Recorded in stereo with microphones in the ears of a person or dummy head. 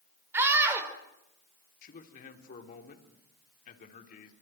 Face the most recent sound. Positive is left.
turn(degrees=50)  # may be behind; listen again after turning